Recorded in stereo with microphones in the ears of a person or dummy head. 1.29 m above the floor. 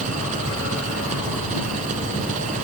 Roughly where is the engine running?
Right.